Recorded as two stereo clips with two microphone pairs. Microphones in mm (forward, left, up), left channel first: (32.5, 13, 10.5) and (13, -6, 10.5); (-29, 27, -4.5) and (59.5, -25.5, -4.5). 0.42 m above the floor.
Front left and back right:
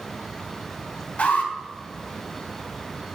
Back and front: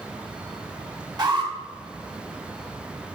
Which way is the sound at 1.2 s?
15° left.